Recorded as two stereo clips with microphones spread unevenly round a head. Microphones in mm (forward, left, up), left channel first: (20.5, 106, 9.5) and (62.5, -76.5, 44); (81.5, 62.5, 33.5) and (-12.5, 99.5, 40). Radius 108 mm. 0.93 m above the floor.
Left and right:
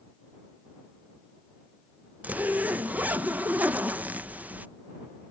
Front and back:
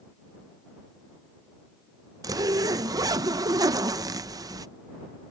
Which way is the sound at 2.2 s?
170° right.